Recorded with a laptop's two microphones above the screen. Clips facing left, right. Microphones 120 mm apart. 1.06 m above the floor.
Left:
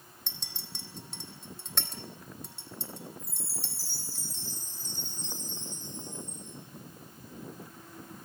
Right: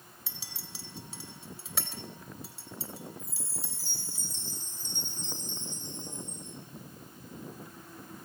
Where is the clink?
5° right (ahead or behind), 3.5 m.